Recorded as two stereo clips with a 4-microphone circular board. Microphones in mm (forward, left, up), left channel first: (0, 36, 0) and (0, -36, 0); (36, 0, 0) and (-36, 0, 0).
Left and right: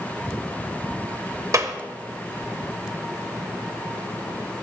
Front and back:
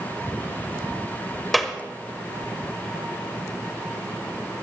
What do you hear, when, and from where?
1.5 s a clap: 90° right, 1.2 m